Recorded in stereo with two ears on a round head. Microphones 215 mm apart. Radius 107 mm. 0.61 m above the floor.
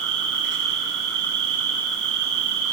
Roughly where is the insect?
Right.